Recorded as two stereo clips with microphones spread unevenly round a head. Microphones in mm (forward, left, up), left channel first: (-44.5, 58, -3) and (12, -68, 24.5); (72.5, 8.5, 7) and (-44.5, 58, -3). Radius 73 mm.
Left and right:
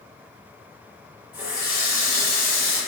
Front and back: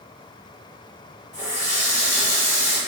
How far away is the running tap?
About 1.4 m.